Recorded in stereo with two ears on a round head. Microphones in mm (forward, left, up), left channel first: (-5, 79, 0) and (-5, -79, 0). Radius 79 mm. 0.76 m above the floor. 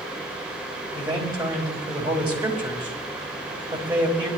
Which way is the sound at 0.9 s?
30° right (ahead or behind).